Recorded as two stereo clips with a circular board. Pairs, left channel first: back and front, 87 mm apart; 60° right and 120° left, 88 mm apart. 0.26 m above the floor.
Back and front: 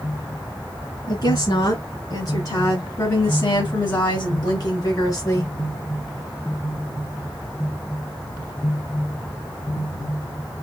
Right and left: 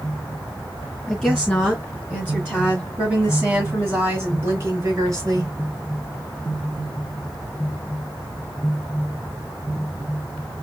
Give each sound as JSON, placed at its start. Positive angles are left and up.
{"t": 1.1, "sound": "a woman speaking", "azimuth_deg": -150, "distance_m": 2.5}